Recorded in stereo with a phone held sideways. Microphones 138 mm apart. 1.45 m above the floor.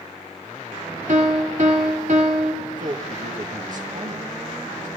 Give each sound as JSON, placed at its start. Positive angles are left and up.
{"t": 1.1, "sound": "a piano", "side_deg": -65, "distance_m": 2.5}
{"t": 2.6, "sound": "a man speaking", "side_deg": -70, "distance_m": 2.0}